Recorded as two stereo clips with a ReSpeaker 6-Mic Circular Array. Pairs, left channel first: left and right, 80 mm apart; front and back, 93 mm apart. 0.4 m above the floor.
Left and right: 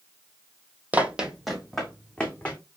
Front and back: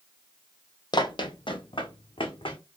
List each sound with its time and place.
0.9 s running footsteps: 20° right, 0.6 m; by 2.6 s 15° left, 1.2 m